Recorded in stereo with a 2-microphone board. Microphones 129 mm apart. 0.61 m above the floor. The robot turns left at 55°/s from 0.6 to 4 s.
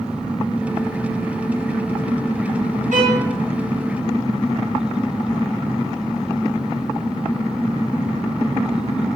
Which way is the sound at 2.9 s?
80° right.